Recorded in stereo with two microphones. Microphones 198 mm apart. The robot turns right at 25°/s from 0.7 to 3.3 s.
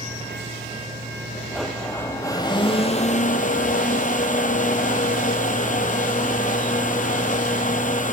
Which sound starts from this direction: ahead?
A blender, at 1.5 s.